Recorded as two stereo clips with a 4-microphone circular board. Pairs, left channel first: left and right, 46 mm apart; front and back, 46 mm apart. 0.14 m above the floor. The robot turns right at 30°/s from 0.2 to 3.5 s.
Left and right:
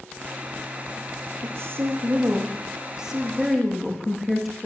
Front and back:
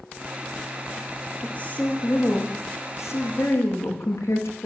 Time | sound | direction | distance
1.4 | a woman speaking | 60° right | 10 m